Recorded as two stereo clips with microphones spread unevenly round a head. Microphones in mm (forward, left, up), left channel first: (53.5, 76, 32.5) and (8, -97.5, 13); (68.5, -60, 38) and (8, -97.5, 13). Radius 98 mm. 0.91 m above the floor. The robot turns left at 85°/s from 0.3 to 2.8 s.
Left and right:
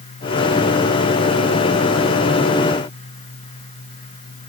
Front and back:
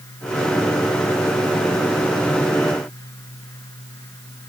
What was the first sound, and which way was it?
Only background noise.